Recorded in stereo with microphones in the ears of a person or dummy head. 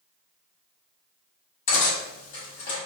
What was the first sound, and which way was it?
Cutlery clinking, 40° left (ahead or behind).